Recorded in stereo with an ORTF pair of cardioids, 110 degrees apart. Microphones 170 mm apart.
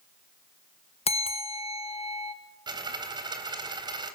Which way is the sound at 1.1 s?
35° left.